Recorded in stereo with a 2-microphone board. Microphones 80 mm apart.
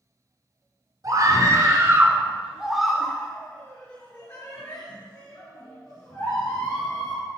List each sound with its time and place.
1.0 s a scream: 50° right (ahead or behind), 2.5 m; by 7.2 s 70° left (ahead or behind), 4.5 m